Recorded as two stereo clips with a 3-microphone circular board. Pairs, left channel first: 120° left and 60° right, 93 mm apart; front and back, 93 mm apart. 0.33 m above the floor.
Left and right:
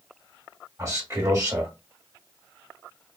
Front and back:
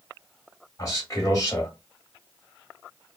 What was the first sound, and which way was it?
A man speaking, 25° right.